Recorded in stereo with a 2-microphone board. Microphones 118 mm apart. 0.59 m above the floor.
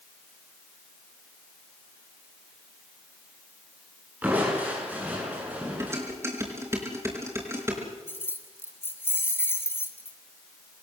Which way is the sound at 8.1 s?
20° left (ahead or behind).